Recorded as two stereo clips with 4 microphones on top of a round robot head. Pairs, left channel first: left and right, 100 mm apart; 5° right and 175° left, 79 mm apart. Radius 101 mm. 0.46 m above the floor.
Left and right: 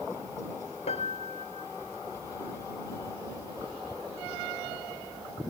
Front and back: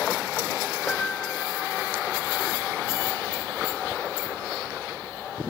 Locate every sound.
0.9 s a piano: 70° left